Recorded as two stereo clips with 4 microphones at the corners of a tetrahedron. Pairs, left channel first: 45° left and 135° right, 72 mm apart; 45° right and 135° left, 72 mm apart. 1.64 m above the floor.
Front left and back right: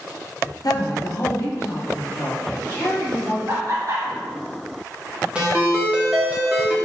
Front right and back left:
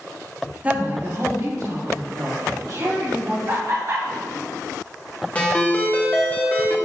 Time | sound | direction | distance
0.6 | a woman speaking | 65° left | 1.0 m
3.5 | laughter | 170° left | 1.4 m
5.3 | a ringtone | 85° right | 1.3 m